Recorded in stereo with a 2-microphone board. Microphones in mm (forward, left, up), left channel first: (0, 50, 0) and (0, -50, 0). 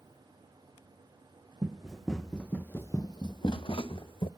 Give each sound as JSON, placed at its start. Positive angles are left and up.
{"t": 1.6, "sound": "running footsteps", "side_deg": -10, "distance_m": 1.3}